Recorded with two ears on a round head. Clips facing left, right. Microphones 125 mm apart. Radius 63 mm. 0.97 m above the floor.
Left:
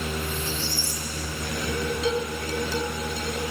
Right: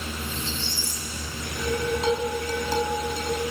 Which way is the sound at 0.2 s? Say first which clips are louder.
Left 2 dB; 20° right (ahead or behind).